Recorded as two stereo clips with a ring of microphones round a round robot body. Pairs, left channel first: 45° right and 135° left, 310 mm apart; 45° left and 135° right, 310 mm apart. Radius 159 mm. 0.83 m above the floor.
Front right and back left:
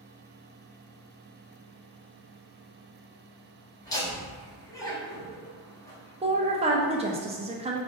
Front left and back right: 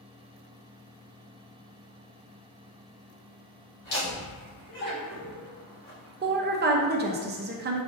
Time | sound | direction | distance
3.8 | laughter | 35° left | 1.8 m
6.2 | a woman speaking | 165° right | 0.5 m